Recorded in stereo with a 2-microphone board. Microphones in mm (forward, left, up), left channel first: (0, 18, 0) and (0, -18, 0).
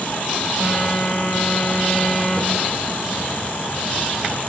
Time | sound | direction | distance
0.6 | a phone buzzing | 5° left (ahead or behind) | 5 m